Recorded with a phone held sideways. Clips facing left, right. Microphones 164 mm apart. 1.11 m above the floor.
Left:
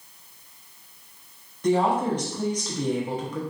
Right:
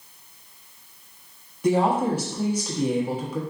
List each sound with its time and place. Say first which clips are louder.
1.6 s a woman speaking: right 1 dB; 10° right (ahead or behind), 0.8 m